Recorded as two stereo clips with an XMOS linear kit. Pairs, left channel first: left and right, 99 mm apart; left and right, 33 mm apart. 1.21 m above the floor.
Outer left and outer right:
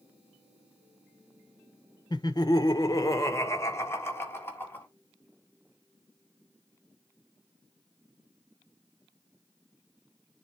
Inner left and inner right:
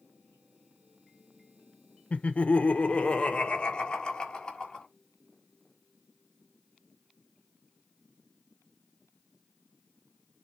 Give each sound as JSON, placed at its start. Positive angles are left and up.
{"t": 2.1, "sound": "laughter", "side_deg": 45, "distance_m": 1.0}